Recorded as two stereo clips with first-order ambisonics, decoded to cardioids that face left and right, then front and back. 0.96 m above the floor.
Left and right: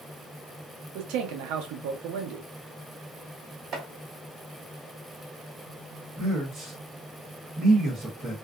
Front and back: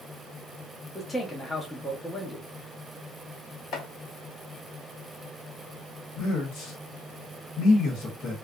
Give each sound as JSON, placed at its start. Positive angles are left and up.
{"t": 0.9, "sound": "a man speaking", "azimuth_deg": -80, "distance_m": 0.7}
{"t": 3.7, "sound": "chopping", "azimuth_deg": -45, "distance_m": 1.1}
{"t": 6.2, "sound": "a man speaking", "azimuth_deg": -15, "distance_m": 1.1}